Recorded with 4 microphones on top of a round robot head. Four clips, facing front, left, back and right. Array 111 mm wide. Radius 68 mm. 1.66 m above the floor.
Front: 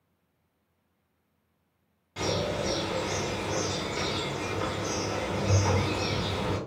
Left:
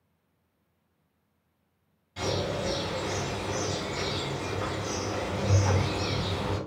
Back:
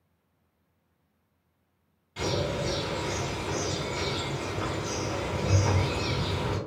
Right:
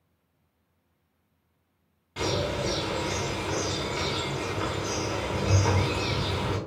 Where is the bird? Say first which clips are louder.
Right 2 dB, even; 60° right, 0.9 m.